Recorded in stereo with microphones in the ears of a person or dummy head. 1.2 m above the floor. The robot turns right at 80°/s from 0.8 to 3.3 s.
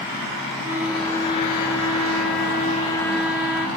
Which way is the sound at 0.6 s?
10° right.